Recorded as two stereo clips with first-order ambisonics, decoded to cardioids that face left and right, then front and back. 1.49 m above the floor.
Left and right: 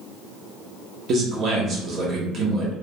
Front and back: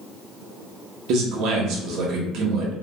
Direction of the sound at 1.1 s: 145° right.